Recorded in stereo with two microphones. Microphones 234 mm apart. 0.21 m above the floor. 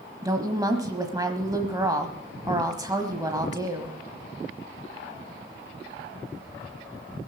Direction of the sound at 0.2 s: 15° right (ahead or behind).